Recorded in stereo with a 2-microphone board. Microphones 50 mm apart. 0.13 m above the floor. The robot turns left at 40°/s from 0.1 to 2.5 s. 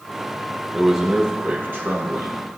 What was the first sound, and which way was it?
A man speaking, straight ahead.